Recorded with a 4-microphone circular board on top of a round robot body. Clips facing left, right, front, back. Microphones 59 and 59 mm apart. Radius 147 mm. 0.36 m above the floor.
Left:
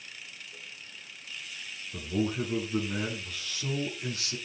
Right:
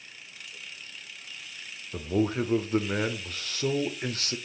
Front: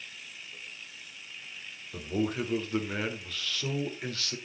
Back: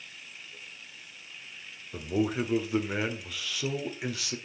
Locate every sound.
1.9 s a man speaking: 100° right, 1.5 m